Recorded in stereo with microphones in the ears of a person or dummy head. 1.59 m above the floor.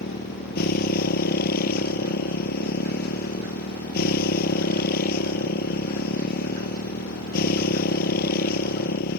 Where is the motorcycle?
60° left (ahead or behind).